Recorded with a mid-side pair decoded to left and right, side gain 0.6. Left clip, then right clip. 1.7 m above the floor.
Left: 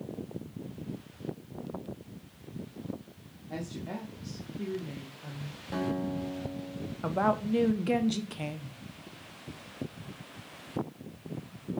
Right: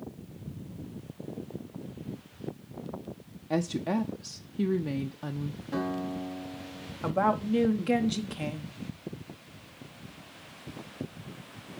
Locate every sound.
3.5 s a woman speaking: 50° right, 0.6 m
5.7 s a guitar: 25° left, 4.5 m
7.0 s a woman speaking: 5° right, 1.1 m